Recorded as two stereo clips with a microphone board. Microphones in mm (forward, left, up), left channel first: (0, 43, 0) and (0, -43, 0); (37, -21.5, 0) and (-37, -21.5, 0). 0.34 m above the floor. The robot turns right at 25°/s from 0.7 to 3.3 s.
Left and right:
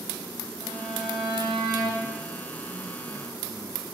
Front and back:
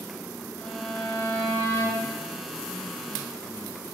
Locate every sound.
0.6 s a violin: 75° right, 4 m; by 2.1 s 40° right, 4 m